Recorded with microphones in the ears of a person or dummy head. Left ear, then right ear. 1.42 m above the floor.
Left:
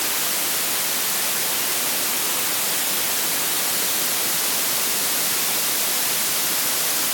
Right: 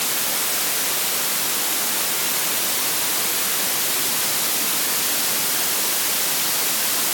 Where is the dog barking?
No dog barking in this recording.